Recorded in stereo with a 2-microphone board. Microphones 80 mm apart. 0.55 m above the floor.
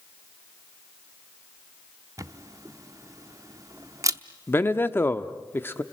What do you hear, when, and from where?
2.2 s a camera shutter: 45° right (ahead or behind), 0.7 m
4.5 s a man speaking: 25° left (ahead or behind), 0.8 m